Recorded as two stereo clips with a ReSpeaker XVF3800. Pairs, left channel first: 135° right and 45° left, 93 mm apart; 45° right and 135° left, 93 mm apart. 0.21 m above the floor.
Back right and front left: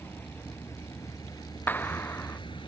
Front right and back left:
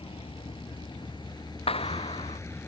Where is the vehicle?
65° right; by 2.7 s 110° right.